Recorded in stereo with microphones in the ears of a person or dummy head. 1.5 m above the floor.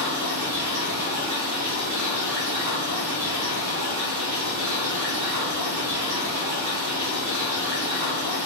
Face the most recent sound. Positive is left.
turn(degrees=-50)  # may be behind; listen again after turning